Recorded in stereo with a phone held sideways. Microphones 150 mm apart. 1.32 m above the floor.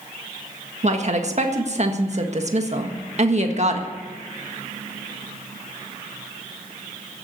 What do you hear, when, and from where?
0.8 s a woman speaking: 50° right (ahead or behind), 1.6 m